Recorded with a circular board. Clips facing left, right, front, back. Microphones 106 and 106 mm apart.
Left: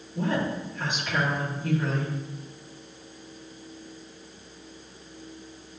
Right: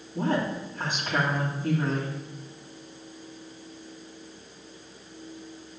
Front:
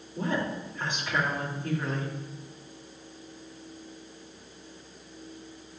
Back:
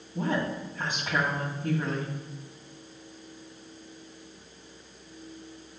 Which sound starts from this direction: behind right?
A woman speaking, at 0.1 s.